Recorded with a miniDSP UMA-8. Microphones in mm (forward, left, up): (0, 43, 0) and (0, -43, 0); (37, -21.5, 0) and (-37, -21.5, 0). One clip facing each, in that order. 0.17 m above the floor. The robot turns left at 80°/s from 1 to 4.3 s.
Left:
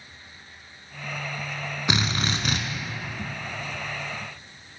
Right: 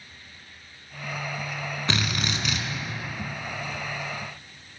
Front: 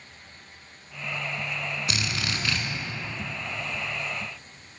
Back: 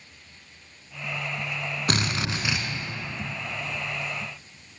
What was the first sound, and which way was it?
A drill, 160° left.